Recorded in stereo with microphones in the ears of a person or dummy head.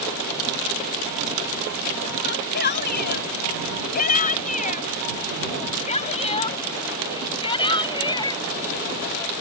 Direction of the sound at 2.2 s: 50° left (ahead or behind).